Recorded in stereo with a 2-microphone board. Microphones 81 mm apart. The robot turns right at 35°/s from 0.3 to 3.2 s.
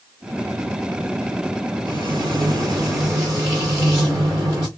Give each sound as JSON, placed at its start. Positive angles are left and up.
{"t": 1.9, "sound": "frying", "azimuth_deg": -70, "distance_m": 4.0}